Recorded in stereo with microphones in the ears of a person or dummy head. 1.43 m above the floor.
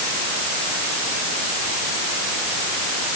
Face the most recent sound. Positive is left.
No sound to turn to.